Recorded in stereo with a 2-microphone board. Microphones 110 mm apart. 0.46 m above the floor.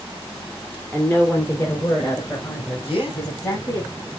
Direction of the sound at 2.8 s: 60° left (ahead or behind).